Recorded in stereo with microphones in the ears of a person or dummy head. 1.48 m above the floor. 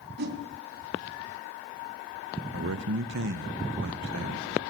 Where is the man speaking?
65° right (ahead or behind), 1.0 m.